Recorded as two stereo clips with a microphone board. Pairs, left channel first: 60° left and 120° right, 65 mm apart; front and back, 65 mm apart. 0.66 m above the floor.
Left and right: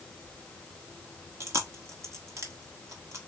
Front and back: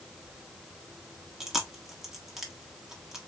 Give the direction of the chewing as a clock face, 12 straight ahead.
3 o'clock.